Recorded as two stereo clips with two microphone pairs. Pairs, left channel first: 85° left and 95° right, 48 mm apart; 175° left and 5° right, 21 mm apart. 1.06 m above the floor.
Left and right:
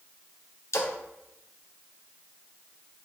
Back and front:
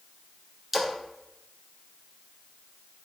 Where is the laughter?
No laughter in this recording.